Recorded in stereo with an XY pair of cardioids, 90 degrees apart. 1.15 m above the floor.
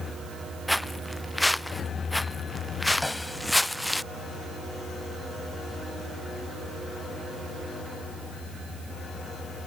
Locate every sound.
0.7 s footsteps: straight ahead; by 4.0 s 5° left
3.0 s a snare drum: 10° left